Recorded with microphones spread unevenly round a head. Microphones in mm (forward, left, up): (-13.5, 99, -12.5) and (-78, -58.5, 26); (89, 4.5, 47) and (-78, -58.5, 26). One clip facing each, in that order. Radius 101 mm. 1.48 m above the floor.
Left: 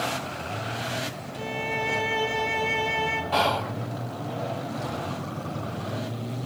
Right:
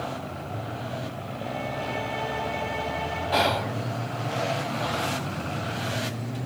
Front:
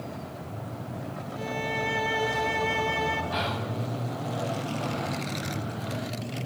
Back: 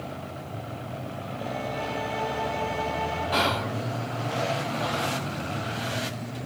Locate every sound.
1.4 s a violin: 50° left, 1.6 m
3.3 s whispering: 170° left, 0.7 m